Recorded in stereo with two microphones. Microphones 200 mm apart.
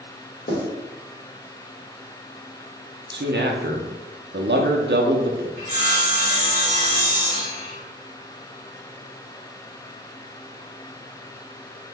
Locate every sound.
0.5 s writing: 75° left (ahead or behind), 1.2 m
3.1 s a man speaking: 65° right (ahead or behind), 0.6 m
5.6 s sawing: 35° right (ahead or behind), 1.2 m